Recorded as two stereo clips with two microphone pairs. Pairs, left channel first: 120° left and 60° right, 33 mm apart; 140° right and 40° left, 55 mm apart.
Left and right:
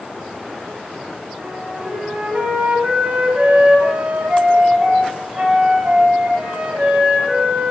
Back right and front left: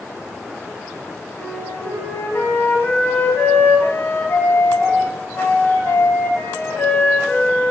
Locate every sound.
1.4 s a flute: 105° right, 1.3 m